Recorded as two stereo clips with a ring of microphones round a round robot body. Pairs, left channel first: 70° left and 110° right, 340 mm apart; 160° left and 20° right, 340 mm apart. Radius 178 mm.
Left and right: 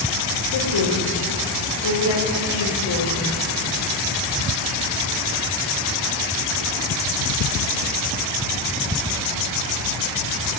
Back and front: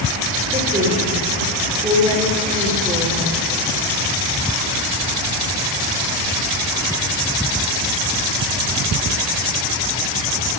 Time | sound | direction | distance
0.5 | a woman speaking | 50° left | 2.5 m